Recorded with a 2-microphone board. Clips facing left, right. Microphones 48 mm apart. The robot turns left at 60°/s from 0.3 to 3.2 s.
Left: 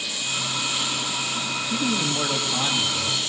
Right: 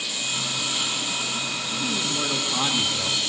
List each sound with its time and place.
1.7 s a man speaking: 60° left, 1.7 m; by 3.2 s 30° right, 1.7 m